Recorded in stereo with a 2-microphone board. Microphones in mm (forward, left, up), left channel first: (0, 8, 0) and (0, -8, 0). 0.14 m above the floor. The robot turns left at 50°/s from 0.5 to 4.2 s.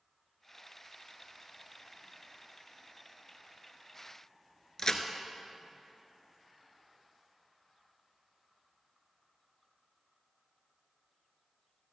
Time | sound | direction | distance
4.8 | a crack | 35° left (ahead or behind) | 1.0 m